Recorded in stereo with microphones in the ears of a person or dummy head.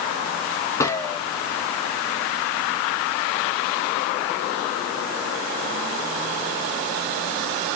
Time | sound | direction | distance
0.8 | a gunshot | 15° left (ahead or behind) | 1.1 m